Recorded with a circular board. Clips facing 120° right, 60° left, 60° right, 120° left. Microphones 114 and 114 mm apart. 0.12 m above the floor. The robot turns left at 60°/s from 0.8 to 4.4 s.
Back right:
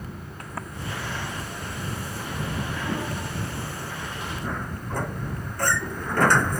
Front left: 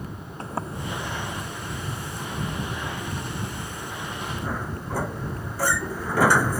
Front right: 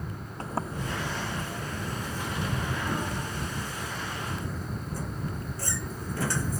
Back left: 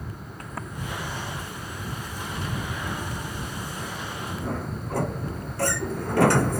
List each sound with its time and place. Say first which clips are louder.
0.4 s a sliding door: front left 5 dB, front right 4 dB; straight ahead; by 6.6 s 145° left